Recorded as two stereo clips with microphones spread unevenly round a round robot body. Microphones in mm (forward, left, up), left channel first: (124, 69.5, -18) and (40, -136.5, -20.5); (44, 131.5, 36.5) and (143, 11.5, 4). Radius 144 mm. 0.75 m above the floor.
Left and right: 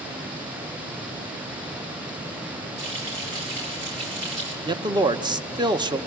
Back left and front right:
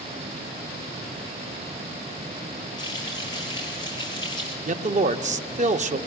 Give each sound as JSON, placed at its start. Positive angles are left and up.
{"t": 2.8, "sound": "frying", "azimuth_deg": -160, "distance_m": 5.0}
{"t": 4.6, "sound": "a man speaking", "azimuth_deg": -45, "distance_m": 0.9}